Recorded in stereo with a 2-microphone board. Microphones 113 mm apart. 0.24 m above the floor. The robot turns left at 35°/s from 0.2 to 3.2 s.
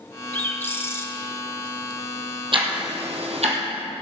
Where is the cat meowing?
I don't hear a cat meowing.